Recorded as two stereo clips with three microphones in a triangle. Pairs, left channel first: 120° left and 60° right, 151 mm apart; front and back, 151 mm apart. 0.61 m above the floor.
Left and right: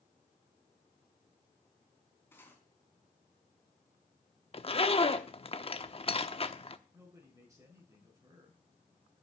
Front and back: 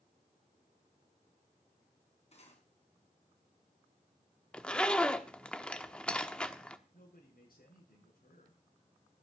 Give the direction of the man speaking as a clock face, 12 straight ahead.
12 o'clock.